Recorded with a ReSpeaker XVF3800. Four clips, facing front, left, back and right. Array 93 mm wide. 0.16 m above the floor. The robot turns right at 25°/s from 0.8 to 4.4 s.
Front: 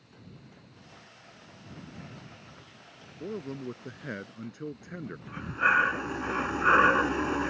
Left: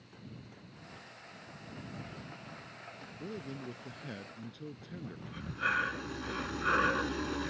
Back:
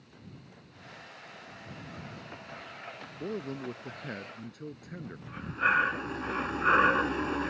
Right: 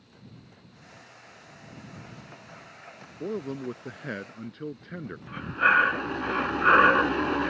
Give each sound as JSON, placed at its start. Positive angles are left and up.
{"t": 3.2, "sound": "a man speaking", "azimuth_deg": -95}
{"t": 5.3, "sound": "breathing", "azimuth_deg": -75}